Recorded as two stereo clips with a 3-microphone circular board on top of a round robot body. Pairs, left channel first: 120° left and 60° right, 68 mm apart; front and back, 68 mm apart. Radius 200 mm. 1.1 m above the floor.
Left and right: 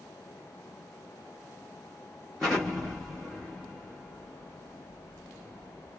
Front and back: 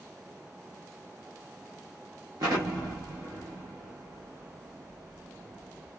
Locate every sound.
2.4 s an explosion: 155° right, 0.5 m